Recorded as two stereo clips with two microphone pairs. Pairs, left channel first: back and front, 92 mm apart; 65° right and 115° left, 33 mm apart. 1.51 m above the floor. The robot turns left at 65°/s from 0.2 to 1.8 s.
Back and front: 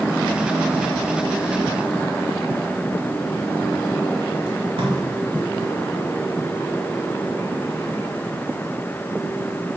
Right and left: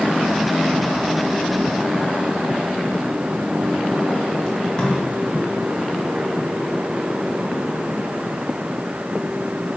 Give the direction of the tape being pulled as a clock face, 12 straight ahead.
12 o'clock.